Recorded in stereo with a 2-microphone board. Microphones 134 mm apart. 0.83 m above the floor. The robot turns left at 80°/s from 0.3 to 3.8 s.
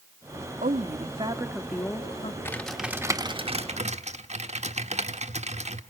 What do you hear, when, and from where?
0.6 s a woman speaking: 95° right, 1.5 m; by 2.4 s 130° left, 1.5 m
2.5 s typing on a keyboard: 25° left, 1.3 m; by 5.8 s 85° right, 1.3 m